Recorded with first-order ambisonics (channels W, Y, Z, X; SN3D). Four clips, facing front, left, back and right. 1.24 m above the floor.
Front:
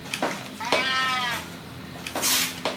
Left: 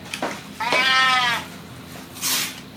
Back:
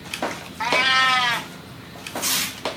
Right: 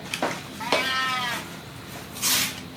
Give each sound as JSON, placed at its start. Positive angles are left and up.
{"t": 0.6, "sound": "a cat meowing", "azimuth_deg": 125}